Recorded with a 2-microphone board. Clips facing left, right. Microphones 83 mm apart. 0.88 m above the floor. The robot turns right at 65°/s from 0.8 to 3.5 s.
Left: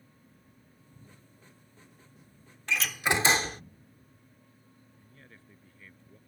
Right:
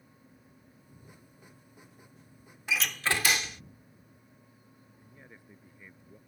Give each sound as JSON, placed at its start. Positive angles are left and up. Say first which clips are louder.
{"t": 2.7, "sound": "a door slam", "louder": "left 2 dB", "azimuth_deg": -10}
{"t": 5.0, "sound": "a man speaking", "louder": "right 3 dB", "side_deg": -15}